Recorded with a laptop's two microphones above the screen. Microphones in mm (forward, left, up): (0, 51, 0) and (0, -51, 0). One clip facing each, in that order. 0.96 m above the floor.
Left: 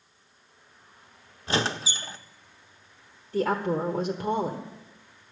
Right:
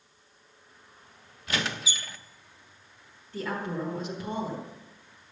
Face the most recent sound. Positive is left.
turn(degrees=40)  # may be behind; listen again after turning